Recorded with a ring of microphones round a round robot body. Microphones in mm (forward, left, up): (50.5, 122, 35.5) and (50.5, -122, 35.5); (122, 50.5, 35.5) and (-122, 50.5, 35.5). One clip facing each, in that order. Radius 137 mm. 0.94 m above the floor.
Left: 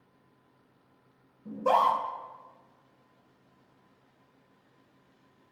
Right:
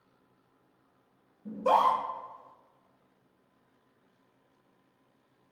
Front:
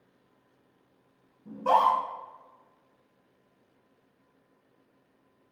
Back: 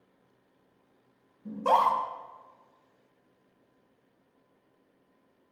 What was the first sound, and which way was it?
A scream, 165° right.